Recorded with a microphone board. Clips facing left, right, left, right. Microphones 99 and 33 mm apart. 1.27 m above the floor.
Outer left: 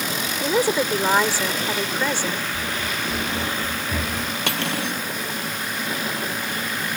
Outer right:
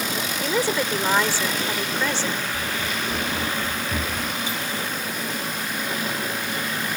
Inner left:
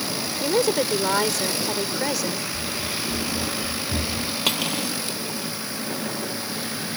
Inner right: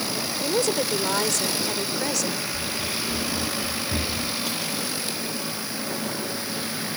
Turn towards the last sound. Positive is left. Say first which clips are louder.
# outer left 3 dB, inner left 4 dB
turn(degrees=75)  # may be behind; listen again after turning